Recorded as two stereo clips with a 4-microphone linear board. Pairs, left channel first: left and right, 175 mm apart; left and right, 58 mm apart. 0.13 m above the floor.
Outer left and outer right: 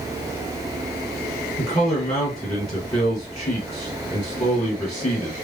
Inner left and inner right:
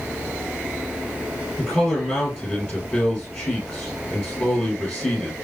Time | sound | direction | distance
1.6 | a man speaking | 25° left (ahead or behind) | 1.8 m